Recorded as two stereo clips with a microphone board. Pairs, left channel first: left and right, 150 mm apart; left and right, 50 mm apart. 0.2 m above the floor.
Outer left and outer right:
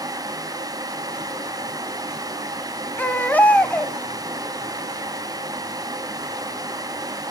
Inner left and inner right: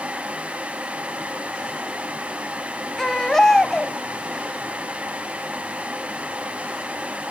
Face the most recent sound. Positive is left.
turn(degrees=10)  # may be behind; listen again after turning